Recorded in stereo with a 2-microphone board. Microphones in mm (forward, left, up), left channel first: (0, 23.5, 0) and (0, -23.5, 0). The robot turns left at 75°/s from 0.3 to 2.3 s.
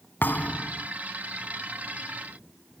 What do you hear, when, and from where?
0.2 s a thud: 45° left; by 0.9 s straight ahead